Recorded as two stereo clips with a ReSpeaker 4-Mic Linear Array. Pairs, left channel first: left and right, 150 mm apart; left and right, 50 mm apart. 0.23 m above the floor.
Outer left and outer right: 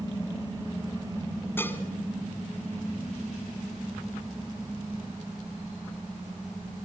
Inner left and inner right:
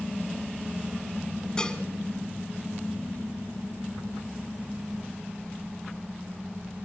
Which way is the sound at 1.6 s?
15° left (ahead or behind).